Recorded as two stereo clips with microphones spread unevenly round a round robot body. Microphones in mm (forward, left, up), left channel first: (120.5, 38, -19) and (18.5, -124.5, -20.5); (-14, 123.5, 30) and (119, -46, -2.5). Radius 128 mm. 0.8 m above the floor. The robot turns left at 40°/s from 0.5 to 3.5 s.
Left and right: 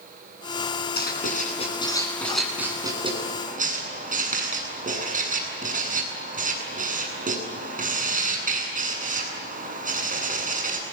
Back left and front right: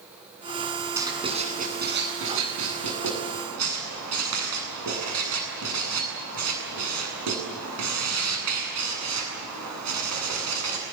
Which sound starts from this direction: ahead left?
Writing, at 1.0 s.